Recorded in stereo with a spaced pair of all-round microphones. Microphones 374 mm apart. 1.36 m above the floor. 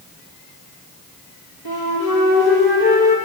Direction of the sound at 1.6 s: 75° left (ahead or behind).